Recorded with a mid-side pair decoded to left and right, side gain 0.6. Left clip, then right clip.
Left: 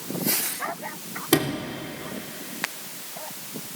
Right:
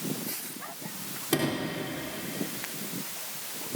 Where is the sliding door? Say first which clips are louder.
Left 5 dB; 40° left, 3.5 m.